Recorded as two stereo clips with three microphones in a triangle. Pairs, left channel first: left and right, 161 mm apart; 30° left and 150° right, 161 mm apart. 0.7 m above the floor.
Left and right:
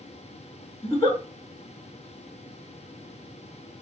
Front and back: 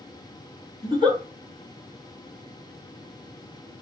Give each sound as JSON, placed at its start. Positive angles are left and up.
{"t": 0.8, "sound": "a giggle", "azimuth_deg": 25, "distance_m": 1.7}